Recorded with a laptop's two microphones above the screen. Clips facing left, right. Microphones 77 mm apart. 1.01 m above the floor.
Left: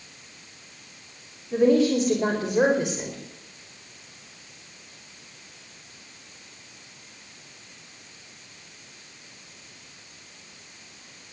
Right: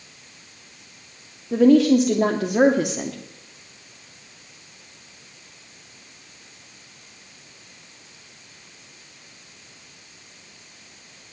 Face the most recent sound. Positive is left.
turn(degrees=-70)  # may be behind; listen again after turning